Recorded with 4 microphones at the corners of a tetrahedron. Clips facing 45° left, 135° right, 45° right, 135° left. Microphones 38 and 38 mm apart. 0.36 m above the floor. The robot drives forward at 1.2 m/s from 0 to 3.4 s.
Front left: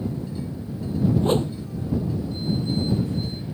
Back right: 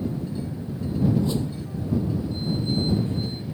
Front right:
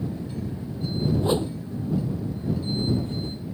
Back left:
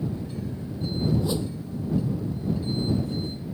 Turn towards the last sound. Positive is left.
turn(degrees=10)